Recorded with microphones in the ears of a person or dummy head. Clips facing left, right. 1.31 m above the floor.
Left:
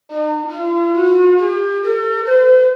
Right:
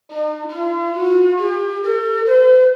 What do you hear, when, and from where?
0.1 s a flute: 5° left (ahead or behind), 1.2 m